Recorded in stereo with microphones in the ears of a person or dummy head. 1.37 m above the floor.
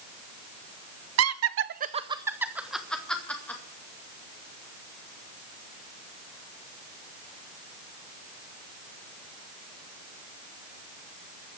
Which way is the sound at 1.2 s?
75° right (ahead or behind).